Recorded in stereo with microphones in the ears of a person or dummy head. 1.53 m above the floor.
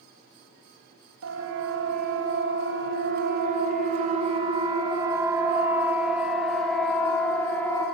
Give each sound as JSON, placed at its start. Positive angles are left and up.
{"t": 1.2, "sound": "a siren", "side_deg": -80, "distance_m": 2.5}